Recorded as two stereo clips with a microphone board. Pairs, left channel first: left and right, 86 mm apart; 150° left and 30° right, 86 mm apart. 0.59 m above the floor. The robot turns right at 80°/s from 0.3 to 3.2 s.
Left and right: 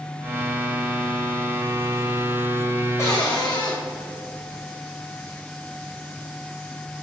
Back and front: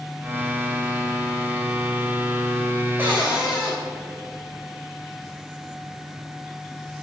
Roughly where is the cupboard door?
Ahead left.